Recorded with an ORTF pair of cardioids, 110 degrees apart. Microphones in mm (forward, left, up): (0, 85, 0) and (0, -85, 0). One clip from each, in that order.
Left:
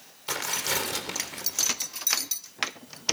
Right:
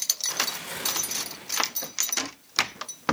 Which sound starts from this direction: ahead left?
Tearing paper, at 0.3 s.